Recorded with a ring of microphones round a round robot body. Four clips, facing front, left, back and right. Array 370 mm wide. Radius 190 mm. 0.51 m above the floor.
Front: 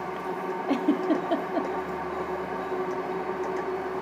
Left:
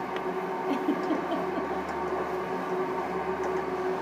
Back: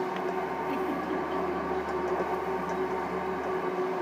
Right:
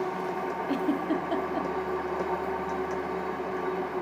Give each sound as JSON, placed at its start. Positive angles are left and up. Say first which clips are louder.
{"t": 0.7, "sound": "a giggle", "louder": "even, front 10 dB", "azimuth_deg": -5, "distance_m": 1.1}